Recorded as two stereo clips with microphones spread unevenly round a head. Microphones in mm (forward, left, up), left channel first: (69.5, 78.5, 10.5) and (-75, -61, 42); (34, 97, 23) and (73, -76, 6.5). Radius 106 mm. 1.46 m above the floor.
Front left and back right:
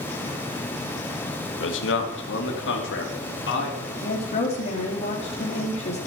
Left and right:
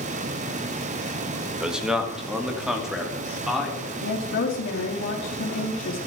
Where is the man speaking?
10° left, 1.7 m.